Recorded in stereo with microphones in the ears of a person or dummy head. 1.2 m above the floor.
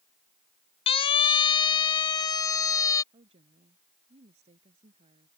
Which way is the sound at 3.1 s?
30° right (ahead or behind).